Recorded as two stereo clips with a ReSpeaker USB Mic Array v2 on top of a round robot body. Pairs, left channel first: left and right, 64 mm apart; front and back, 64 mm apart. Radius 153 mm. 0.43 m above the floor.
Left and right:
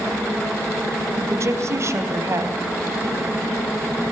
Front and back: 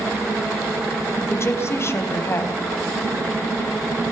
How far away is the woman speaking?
About 3 m.